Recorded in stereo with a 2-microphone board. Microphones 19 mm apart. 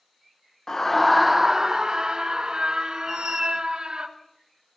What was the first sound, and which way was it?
A scream, 25° left (ahead or behind).